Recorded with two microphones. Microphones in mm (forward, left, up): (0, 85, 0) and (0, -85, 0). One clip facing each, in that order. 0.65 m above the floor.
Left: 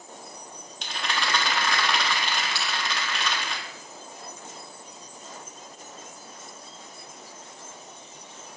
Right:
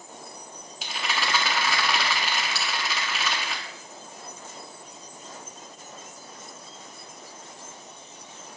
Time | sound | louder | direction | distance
0.8 | a rattle | even | 5° right (ahead or behind) | 1.4 m
2.5 | a bell | even | 45° right (ahead or behind) | 2 m